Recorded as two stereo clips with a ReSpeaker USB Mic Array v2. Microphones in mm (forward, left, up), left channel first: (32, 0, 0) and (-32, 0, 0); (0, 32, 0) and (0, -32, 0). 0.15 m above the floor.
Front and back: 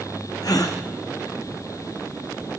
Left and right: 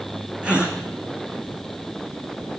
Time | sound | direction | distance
0.4 | a gasp | 15° right | 3 m